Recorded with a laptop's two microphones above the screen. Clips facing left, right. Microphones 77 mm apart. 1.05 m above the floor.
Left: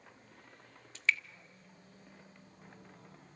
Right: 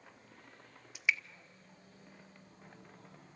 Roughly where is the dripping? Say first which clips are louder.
Left 1 dB; centre.